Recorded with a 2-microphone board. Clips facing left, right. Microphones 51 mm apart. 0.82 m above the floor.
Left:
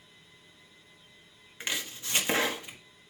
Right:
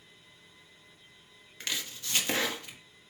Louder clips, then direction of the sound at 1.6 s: Left 2 dB; 15° left (ahead or behind).